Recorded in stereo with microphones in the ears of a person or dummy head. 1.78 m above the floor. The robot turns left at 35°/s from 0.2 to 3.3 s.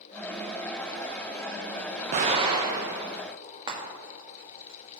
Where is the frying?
30° right (ahead or behind), 1.6 m.